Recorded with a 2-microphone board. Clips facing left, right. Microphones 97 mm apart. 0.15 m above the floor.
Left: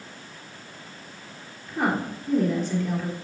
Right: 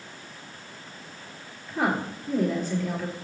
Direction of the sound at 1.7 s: Centre (ahead or behind).